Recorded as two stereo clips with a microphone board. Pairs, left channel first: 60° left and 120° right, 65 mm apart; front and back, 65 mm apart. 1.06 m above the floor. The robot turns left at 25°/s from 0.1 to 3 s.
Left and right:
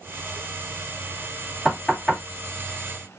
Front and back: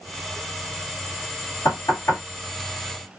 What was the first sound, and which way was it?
Knocking, 20° right.